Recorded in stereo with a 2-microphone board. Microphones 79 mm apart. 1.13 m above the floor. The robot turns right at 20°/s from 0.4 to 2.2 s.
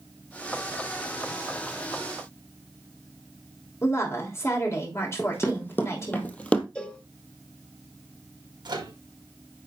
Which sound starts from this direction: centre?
A cowbell, at 6.8 s.